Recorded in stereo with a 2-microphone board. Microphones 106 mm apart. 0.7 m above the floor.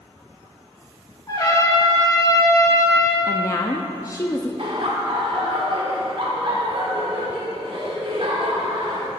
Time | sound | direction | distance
1.3 | a trumpet | 35° left (ahead or behind) | 1.6 m
3.3 | a woman speaking | 30° left (ahead or behind) | 0.5 m
4.6 | laughter | 60° right (ahead or behind) | 1.9 m